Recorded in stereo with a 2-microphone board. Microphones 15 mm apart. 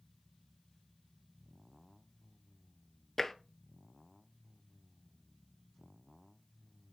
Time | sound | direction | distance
3.2 | tapping | 20° left (ahead or behind) | 0.7 m